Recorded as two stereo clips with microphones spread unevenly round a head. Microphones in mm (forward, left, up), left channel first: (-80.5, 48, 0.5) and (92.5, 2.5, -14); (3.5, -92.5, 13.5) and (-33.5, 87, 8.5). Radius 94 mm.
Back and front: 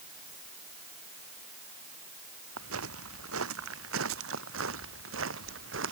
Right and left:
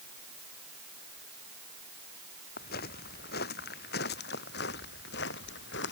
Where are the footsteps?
35° right; by 5.9 s 45° right.